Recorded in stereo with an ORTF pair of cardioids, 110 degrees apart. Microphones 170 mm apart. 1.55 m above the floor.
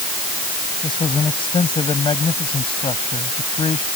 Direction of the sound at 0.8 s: 30° left.